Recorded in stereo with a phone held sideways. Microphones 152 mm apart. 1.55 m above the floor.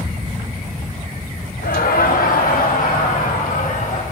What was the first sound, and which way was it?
Laughter, 80° left.